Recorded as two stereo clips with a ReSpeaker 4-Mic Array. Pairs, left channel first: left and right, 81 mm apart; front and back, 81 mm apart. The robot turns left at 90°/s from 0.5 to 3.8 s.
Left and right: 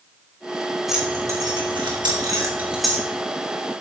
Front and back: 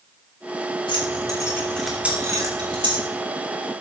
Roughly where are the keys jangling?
Ahead.